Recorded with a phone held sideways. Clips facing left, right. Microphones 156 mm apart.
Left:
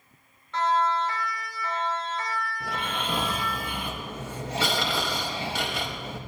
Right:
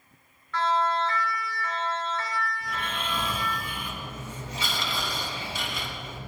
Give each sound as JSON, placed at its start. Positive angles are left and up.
{"t": 0.5, "sound": "a siren", "side_deg": 20, "distance_m": 3.5}
{"t": 2.6, "sound": "snoring", "side_deg": 70, "distance_m": 3.0}